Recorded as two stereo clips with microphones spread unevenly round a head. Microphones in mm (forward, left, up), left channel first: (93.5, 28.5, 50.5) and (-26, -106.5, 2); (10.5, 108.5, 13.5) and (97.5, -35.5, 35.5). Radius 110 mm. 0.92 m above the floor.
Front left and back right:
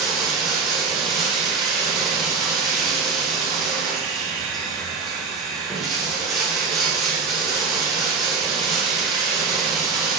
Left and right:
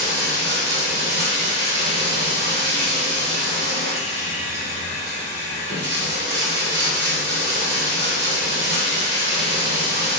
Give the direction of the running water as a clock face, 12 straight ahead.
2 o'clock.